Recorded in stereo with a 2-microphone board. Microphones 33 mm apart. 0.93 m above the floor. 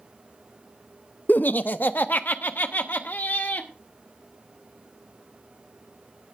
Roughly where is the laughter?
Left.